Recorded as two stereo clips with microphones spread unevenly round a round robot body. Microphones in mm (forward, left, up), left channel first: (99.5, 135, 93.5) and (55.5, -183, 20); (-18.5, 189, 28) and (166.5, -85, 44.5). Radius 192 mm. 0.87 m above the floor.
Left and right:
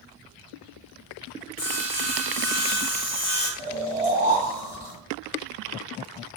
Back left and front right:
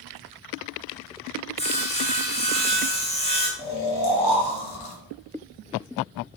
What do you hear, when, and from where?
1.6 s sawing: 50° left, 0.8 m
3.6 s snoring: 105° left, 0.8 m